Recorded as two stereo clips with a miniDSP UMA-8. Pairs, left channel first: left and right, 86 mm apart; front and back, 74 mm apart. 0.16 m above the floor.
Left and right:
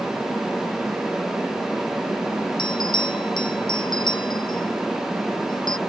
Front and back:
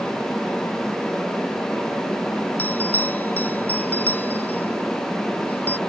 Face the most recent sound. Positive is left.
turn(degrees=65)